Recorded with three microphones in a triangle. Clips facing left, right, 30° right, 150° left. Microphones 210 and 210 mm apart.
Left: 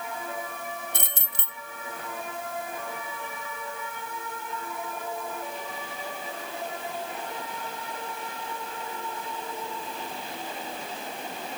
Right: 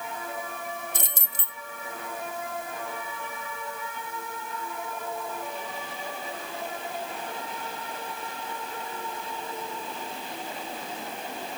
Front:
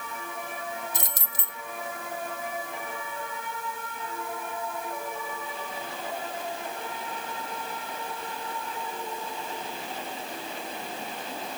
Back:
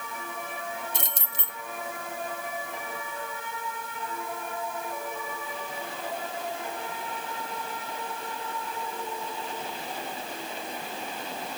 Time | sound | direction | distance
0.9 | keys jangling | 90° left | 1.0 m